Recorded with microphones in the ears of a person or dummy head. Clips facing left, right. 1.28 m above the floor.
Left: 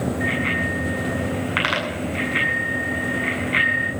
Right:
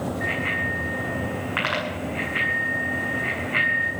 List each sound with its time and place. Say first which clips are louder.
0.2 s a bicycle bell: left 5 dB; 45° left (ahead or behind), 8.5 m